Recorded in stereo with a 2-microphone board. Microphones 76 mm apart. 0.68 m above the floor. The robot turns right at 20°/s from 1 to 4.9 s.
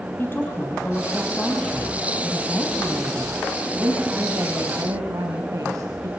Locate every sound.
0.2 s a woman speaking: 150° left, 3.5 m; by 6.1 s 130° right, 3.5 m